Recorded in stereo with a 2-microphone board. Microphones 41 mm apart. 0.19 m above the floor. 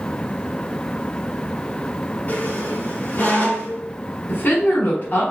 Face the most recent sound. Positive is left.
turn(degrees=50)  # may be behind; listen again after turning